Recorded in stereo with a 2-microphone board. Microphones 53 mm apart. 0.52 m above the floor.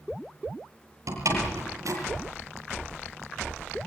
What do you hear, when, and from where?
1.1 s a door slam: 80° right, 9.5 m